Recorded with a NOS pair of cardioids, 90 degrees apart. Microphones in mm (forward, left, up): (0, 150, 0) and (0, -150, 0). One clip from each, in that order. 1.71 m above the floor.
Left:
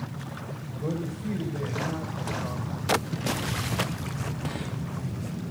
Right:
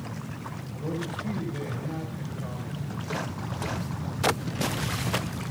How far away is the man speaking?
About 2.5 m.